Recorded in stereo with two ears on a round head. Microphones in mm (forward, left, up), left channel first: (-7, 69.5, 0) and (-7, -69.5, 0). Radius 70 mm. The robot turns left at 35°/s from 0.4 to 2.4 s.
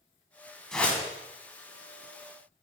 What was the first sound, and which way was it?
A whoosh, 5° left (ahead or behind).